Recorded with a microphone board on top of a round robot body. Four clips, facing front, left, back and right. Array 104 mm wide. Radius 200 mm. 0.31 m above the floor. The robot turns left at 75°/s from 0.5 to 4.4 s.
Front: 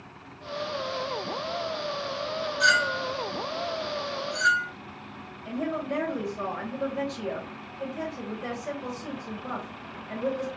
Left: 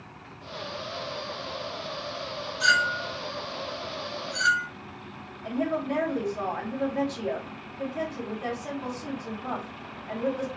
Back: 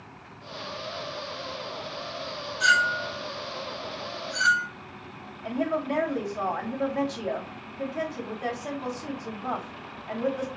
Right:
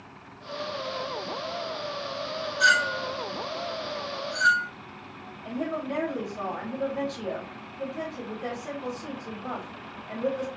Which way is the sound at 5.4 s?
160° left.